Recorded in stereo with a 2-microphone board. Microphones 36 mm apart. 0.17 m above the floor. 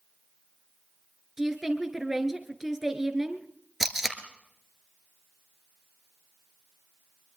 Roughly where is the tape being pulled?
Centre.